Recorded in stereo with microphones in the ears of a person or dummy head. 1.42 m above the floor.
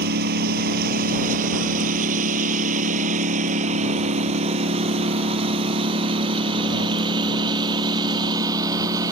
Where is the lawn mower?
60° right (ahead or behind); by 9.1 s 20° right (ahead or behind).